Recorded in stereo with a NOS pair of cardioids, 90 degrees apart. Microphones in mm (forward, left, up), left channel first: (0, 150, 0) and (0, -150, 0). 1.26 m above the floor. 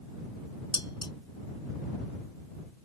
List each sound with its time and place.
0.7 s dishes clattering: 15° left